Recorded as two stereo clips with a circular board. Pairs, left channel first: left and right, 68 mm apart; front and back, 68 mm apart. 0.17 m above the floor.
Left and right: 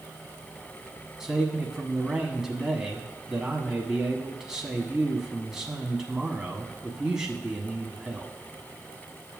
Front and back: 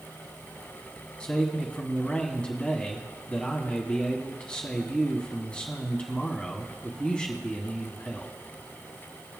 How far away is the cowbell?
No cowbell in this recording.